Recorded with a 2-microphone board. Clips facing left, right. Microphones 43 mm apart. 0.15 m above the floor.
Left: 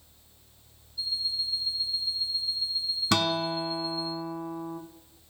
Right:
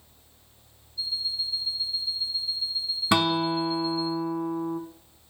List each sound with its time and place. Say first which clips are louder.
1.0 s an alarm clock: right 1 dB; 15° left (ahead or behind), 3.5 m
3.1 s a guitar: right 4 dB; 20° right (ahead or behind), 0.9 m